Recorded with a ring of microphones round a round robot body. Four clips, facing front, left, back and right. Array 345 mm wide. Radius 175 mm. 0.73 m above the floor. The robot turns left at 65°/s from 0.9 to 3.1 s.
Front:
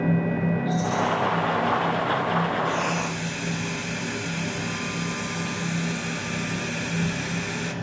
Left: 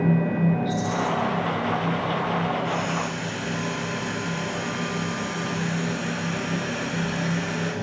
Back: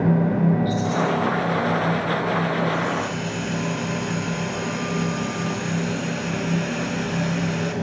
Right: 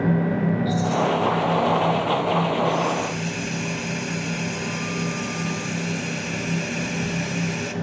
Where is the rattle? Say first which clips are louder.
Right 3 dB, back 2 dB; 175° right, 7 m; by 1.1 s 170° left, 7 m.